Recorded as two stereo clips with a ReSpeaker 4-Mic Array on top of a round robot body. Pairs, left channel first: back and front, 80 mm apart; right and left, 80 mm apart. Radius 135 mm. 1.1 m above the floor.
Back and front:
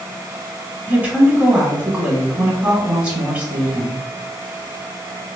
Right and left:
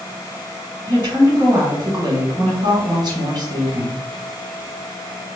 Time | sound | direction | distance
0.9 | a woman speaking | 70° left | 1.7 m